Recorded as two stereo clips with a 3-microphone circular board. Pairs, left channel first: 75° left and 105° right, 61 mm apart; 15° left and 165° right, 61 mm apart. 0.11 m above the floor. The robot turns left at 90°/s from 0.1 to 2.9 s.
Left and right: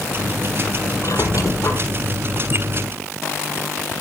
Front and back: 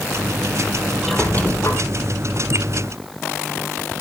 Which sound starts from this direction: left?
A squeak, at 1.0 s.